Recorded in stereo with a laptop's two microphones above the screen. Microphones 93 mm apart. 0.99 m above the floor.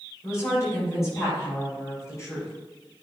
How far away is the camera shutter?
No camera shutter in this recording.